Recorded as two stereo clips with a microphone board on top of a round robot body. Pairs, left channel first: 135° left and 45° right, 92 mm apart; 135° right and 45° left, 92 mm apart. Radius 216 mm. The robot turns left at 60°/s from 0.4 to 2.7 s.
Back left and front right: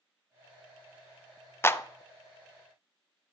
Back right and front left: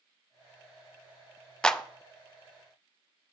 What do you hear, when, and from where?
1.6 s a clap: 155° left, 0.7 m; by 1.8 s 145° left, 0.7 m